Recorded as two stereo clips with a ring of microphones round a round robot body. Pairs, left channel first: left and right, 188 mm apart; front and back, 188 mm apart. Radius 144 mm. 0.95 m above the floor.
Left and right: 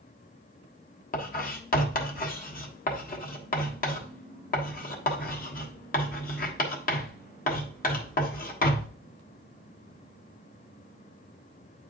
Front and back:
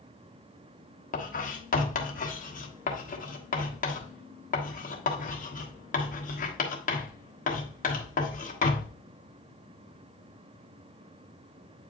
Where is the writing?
45° left, 1.3 m.